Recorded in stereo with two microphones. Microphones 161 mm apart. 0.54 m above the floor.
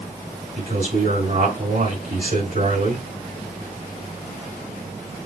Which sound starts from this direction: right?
A man speaking, at 0.6 s.